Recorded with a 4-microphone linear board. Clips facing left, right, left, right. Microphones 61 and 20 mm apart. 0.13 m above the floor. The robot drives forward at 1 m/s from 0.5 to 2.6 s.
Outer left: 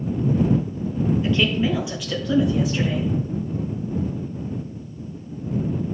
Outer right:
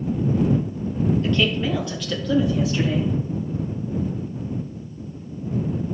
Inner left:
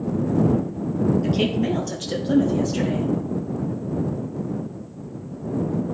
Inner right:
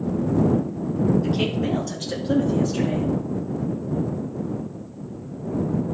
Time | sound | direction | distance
1.2 | a woman speaking | 10° left (ahead or behind) | 3 m